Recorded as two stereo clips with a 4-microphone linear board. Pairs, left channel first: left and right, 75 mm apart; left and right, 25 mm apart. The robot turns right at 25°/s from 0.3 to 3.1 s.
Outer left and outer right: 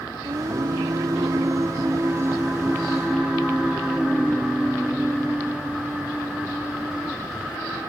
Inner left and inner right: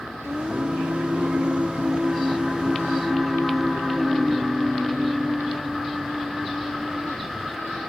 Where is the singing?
80° right; by 7.8 s 10° right.